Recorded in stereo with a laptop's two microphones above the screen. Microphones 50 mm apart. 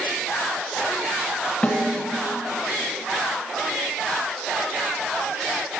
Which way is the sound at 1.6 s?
25° left (ahead or behind).